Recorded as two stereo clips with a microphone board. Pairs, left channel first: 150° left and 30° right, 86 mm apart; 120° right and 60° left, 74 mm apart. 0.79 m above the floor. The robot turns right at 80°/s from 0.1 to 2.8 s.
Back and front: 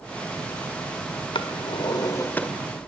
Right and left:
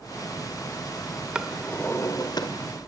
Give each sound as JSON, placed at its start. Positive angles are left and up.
{"t": 1.4, "sound": "a drawer", "azimuth_deg": 135, "distance_m": 1.9}